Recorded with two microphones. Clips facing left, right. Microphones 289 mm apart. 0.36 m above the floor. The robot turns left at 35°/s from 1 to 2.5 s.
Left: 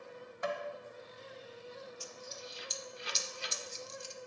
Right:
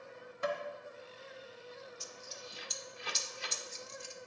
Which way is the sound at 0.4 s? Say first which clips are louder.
Right 1 dB; 35° right (ahead or behind).